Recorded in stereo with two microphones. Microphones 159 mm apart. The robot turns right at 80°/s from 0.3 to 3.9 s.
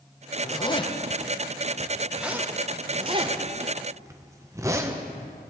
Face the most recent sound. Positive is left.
turn(degrees=-20)  # may be behind; listen again after turning